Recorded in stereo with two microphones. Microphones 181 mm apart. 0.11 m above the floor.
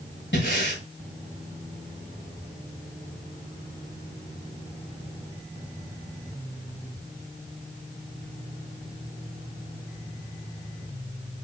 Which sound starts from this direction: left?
Breathing, at 0.3 s.